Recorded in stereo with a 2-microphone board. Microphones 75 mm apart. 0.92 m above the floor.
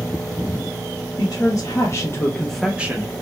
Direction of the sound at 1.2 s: 65° left (ahead or behind).